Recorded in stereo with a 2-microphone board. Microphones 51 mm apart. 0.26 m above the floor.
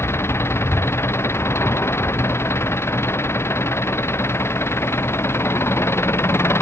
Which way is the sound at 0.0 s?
60° left (ahead or behind).